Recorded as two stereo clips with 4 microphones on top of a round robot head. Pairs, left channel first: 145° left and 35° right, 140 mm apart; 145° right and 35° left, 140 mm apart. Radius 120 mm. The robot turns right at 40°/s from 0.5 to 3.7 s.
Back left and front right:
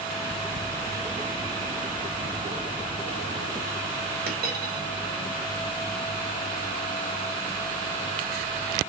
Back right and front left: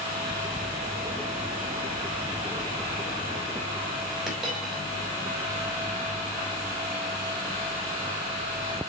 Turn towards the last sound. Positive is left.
turn(degrees=-50)